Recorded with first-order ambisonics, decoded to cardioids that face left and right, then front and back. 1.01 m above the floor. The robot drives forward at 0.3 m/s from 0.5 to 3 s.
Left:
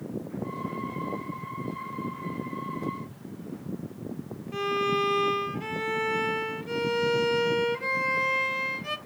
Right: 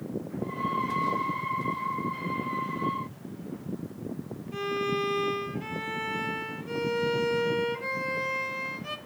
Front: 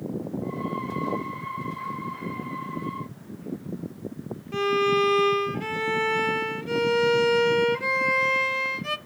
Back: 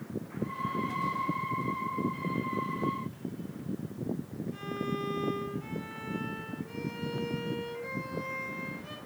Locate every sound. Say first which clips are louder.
4.5 s a violin: left 3 dB, front 16 dB; 15° left, 0.7 m